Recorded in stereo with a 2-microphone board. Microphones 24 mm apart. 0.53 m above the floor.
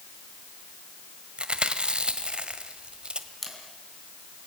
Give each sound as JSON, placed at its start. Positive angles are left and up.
{"t": 1.4, "sound": "chewing", "side_deg": -45, "distance_m": 1.4}
{"t": 3.4, "sound": "a camera shutter", "side_deg": 5, "distance_m": 4.0}